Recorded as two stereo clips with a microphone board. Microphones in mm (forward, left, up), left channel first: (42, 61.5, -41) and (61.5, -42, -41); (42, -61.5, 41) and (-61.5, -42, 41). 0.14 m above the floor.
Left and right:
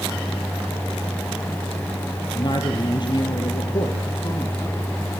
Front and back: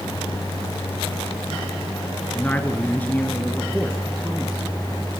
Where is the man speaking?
65° left, 2.5 m.